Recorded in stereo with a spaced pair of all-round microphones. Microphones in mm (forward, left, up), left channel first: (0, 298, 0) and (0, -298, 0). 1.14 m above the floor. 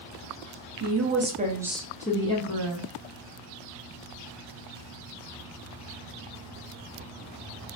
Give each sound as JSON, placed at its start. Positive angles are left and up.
{"t": 0.8, "sound": "a woman speaking", "side_deg": -25, "distance_m": 0.8}